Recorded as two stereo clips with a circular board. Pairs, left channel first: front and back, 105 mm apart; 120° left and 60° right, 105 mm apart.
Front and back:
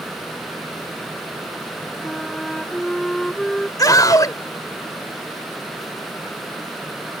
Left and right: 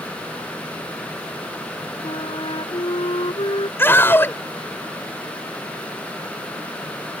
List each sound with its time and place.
2.0 s a flute: 90° left
3.8 s a scream: 50° left